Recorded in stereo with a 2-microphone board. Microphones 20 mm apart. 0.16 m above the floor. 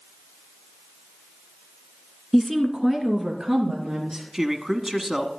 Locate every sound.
2.3 s a woman speaking: centre (ahead or behind), 1.9 m; by 4.2 s 45° right (ahead or behind), 3.5 m
4.3 s a man speaking: 25° right (ahead or behind), 1.2 m